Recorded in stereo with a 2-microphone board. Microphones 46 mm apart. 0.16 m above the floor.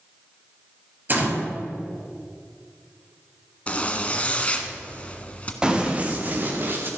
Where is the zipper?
30° left (ahead or behind), 1.4 m.